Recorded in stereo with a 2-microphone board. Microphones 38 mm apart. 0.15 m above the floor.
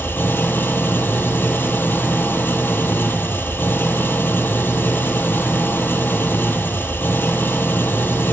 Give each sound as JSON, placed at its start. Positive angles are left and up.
{"t": 0.0, "sound": "an engine running", "side_deg": 75, "distance_m": 1.1}